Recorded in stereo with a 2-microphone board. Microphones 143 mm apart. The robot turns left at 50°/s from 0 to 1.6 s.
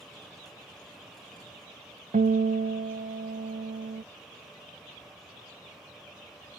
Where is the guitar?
65° right (ahead or behind), 0.7 m.